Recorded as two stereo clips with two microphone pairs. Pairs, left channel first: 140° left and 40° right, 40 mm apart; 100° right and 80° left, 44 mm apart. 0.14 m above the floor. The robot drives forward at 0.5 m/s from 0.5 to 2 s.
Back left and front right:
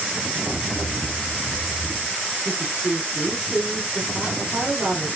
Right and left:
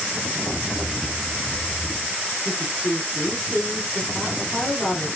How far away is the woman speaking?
About 1.8 m.